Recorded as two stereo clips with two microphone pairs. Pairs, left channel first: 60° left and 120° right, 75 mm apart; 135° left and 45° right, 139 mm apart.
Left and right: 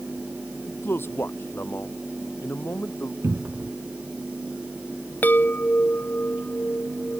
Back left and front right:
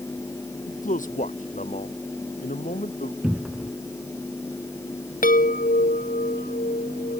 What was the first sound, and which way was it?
A man speaking, 120° left.